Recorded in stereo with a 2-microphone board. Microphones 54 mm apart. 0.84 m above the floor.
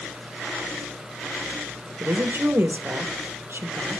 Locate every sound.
2.0 s a woman speaking: 55° right (ahead or behind), 1.0 m